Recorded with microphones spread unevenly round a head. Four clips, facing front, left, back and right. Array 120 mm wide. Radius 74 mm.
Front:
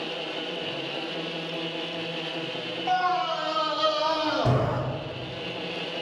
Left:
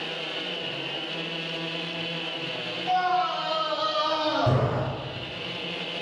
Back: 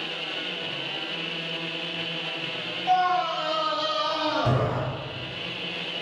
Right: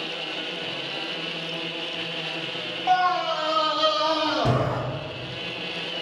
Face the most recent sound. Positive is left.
turn(degrees=-70)